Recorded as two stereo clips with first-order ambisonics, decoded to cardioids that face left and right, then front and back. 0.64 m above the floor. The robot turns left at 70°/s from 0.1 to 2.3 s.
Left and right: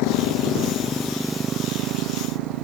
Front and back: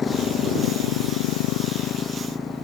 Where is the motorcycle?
75° left; by 2.6 s 80° right.